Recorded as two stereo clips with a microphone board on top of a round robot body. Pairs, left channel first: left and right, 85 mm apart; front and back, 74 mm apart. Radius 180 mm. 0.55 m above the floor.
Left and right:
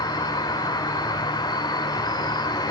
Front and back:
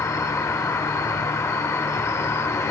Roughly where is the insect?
Ahead left.